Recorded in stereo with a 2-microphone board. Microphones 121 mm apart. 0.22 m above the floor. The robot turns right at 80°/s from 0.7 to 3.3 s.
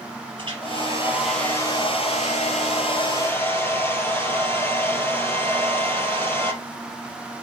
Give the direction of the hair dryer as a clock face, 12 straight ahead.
2 o'clock.